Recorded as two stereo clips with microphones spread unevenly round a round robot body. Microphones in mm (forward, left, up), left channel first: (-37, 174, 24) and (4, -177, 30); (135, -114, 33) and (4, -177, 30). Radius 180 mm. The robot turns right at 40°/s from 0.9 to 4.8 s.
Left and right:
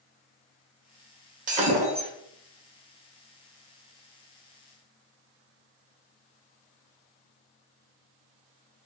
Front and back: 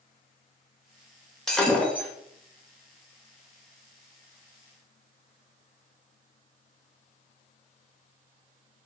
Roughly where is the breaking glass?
Ahead right.